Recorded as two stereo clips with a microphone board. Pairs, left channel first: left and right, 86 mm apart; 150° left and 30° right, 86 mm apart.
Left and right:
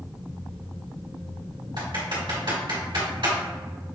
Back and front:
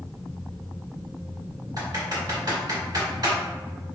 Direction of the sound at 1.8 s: 70° right.